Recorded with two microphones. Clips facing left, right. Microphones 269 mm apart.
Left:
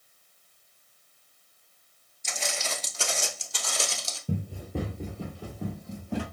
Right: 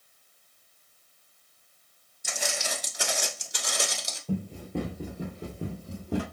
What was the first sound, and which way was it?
Footsteps, 10° right (ahead or behind).